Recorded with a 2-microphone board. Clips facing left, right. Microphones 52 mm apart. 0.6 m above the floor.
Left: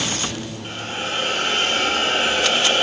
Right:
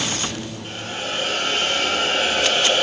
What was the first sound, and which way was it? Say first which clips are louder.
A hiss: left 2 dB; 50° left (ahead or behind).